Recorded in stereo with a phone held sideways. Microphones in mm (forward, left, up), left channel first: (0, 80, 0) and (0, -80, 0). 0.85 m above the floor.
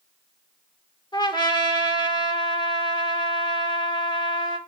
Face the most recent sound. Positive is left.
turn(degrees=30)  # may be behind; listen again after turning